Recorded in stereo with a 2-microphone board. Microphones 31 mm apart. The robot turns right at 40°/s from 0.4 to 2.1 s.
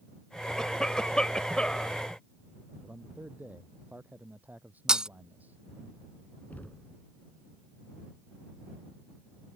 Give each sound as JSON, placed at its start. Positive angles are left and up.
{"t": 0.6, "sound": "a cough", "side_deg": 20}
{"t": 2.8, "sound": "a man speaking", "side_deg": -60}
{"t": 4.9, "sound": "breaking glass", "side_deg": -25}
{"t": 6.5, "sound": "knocking", "side_deg": 65}